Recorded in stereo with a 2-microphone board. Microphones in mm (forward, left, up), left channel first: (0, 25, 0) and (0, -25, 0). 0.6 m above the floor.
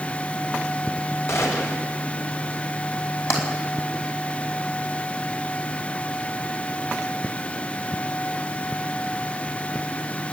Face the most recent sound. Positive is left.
turn(degrees=75)  # may be behind; listen again after turning